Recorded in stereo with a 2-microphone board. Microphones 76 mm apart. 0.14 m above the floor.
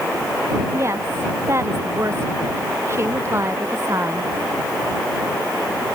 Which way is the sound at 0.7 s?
35° right (ahead or behind).